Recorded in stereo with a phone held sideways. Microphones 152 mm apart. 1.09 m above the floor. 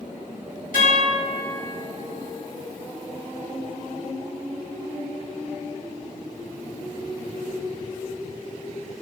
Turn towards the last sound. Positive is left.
turn(degrees=70)  # may be behind; listen again after turning